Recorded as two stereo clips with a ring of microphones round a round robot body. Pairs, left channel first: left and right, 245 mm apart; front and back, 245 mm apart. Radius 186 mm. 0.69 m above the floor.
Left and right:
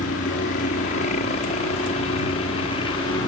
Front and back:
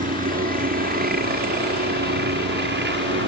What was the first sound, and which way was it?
A helicopter, 140° left.